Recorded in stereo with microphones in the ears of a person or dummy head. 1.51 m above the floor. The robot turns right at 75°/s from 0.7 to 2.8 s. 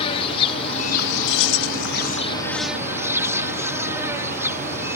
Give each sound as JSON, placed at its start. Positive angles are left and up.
{"t": 0.0, "sound": "an insect", "azimuth_deg": 30}
{"t": 1.3, "sound": "keys jangling", "azimuth_deg": 60}